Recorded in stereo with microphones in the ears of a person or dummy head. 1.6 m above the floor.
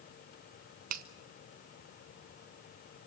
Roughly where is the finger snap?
Right.